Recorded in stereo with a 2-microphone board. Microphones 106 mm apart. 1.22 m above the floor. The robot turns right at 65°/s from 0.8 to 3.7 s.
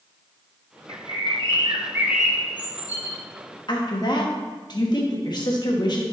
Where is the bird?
90° right, 1.5 m; by 3.2 s 55° left, 1.5 m.